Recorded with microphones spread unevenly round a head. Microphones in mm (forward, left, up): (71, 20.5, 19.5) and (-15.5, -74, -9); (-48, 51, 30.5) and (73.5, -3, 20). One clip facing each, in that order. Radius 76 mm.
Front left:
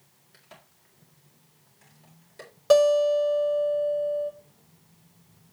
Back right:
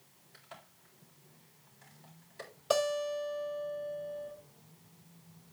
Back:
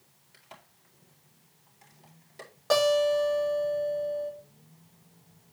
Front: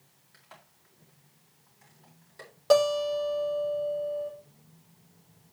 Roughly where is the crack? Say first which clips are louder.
Even, back 3 dB; left.